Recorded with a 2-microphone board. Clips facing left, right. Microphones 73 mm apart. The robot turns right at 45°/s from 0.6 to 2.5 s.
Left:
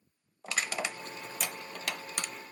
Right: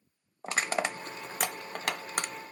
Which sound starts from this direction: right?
Crushing, at 0.4 s.